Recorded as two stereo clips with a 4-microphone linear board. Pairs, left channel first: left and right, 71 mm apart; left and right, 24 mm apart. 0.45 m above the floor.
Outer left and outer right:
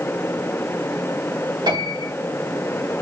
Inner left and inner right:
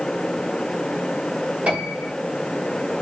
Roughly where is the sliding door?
No sliding door in this recording.